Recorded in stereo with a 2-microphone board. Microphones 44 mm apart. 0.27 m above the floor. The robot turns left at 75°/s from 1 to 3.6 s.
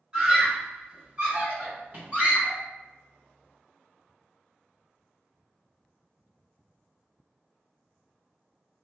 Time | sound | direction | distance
0.1 | a scream | 15° right (ahead or behind) | 1.9 m